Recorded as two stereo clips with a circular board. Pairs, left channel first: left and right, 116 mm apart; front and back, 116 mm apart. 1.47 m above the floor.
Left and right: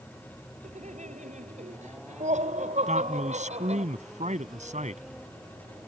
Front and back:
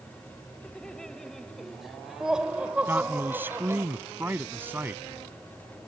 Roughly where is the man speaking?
Right.